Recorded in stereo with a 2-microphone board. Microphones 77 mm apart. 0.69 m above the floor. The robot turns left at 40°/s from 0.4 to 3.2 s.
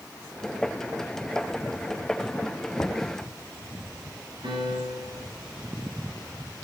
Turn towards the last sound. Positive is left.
turn(degrees=-85)